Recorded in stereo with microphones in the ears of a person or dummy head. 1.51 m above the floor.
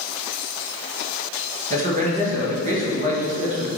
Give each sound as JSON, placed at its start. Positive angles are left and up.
{"t": 1.7, "sound": "a man speaking", "side_deg": -40, "distance_m": 1.8}